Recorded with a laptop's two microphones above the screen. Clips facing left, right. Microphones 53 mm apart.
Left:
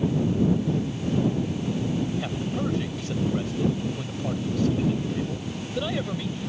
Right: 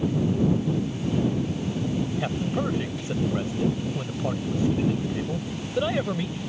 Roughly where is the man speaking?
Centre.